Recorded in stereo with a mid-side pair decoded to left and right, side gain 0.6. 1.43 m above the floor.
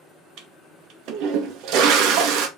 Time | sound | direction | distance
0.4 | a toilet flushing | 65° right | 1.6 m